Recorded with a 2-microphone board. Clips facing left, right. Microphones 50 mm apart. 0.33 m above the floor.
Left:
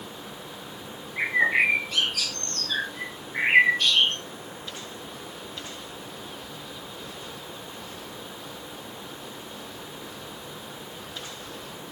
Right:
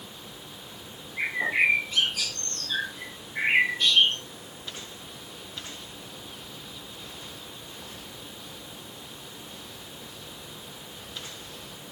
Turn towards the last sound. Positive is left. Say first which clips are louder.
# left 3 dB
turn(degrees=70)  # may be behind; listen again after turning